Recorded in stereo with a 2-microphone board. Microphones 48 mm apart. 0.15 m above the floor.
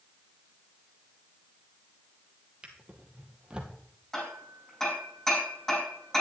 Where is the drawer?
20° right (ahead or behind), 1.6 m.